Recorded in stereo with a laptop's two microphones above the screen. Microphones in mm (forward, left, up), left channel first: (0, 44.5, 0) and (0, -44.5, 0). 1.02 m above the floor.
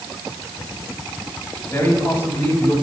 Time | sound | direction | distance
1.7 | a man speaking | 30° left (ahead or behind) | 6.5 m